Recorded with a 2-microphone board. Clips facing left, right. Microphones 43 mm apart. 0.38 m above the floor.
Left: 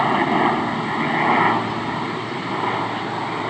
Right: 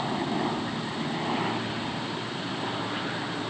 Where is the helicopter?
60° left (ahead or behind).